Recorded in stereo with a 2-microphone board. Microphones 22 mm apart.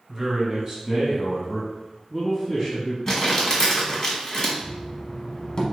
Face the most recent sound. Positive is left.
turn(degrees=35)  # may be behind; listen again after turning